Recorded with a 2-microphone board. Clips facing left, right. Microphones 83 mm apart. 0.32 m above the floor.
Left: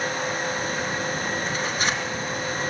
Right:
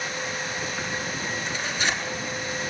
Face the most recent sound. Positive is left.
turn(degrees=40)  # may be behind; listen again after turning